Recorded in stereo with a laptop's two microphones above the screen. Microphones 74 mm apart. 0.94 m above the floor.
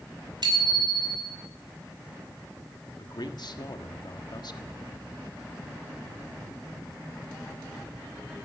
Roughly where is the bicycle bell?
Right.